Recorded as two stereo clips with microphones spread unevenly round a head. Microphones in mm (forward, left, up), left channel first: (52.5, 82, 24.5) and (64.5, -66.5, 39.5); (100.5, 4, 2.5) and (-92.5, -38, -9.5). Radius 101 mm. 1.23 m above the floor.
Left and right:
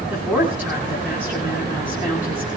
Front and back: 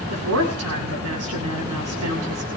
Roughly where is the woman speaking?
Behind.